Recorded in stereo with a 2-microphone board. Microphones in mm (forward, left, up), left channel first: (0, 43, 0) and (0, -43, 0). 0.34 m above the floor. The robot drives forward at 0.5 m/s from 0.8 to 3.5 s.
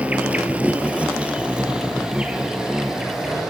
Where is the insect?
15° right (ahead or behind), 1.3 m; by 3.5 s 10° right (ahead or behind), 2.5 m.